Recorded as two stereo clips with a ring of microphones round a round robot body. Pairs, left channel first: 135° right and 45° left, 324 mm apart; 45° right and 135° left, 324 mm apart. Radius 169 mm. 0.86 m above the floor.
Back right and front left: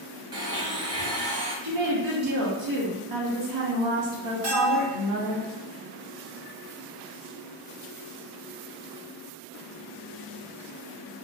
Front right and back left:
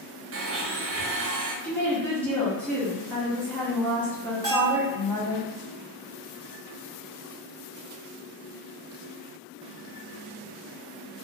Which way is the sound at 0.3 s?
115° left.